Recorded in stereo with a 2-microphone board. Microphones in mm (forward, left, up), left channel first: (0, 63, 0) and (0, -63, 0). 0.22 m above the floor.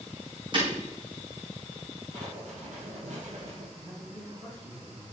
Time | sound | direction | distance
0.5 | breaking glass | 40° right (ahead or behind) | 5 m
2.1 | writing | 75° right (ahead or behind) | 3.5 m
3.8 | a man speaking | 35° right (ahead or behind) | 5 m